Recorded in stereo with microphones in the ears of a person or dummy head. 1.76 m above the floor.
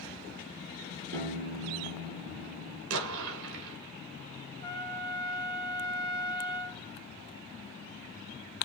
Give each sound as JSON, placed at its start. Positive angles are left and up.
{"t": 1.1, "sound": "a piano", "side_deg": -55, "distance_m": 5.0}
{"t": 2.9, "sound": "an explosion", "side_deg": -70, "distance_m": 3.0}
{"t": 4.6, "sound": "a trumpet", "side_deg": 15, "distance_m": 3.0}